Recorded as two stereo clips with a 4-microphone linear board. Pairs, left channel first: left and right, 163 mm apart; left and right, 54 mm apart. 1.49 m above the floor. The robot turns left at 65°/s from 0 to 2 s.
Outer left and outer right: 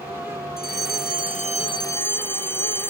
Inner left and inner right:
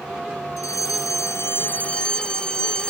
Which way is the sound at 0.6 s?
105° left.